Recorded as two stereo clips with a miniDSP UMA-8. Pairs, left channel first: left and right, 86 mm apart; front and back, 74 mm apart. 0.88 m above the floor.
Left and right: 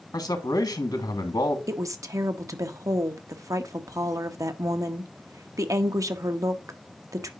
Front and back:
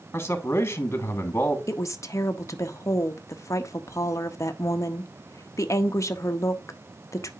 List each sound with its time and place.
0.1 s a man speaking: 55° left, 1.4 m
1.7 s a woman speaking: 45° right, 0.9 m